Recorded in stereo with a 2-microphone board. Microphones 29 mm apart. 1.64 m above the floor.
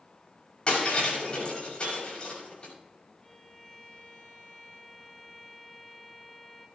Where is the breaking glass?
40° left (ahead or behind), 6.5 m.